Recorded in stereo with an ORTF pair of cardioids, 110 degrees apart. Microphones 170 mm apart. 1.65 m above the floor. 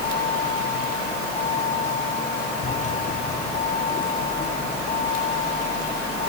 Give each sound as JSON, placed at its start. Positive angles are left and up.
{"t": 0.0, "sound": "a vehicle", "azimuth_deg": 45}